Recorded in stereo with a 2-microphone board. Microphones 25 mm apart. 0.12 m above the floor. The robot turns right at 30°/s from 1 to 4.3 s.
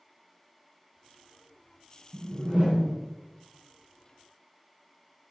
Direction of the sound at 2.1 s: 35° right (ahead or behind).